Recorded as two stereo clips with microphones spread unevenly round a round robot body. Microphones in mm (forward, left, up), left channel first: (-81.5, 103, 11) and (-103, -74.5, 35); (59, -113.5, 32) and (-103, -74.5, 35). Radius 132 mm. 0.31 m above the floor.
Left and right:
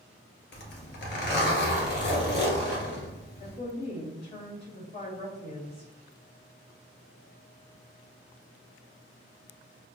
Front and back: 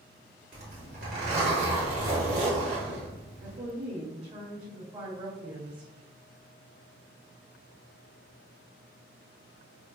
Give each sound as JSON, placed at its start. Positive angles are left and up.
{"t": 0.5, "sound": "a zipper", "azimuth_deg": 110, "distance_m": 1.5}
{"t": 3.4, "sound": "a woman speaking", "azimuth_deg": 120, "distance_m": 1.5}